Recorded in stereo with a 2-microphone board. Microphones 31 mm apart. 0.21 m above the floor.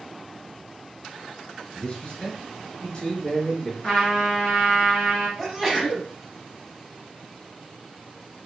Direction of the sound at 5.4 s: 5° right (ahead or behind).